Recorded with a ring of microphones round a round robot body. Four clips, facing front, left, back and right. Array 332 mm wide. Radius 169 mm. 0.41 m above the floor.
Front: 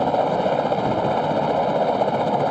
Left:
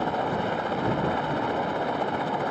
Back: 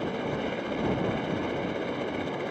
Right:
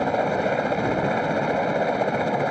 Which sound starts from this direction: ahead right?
A helicopter, at 0.0 s.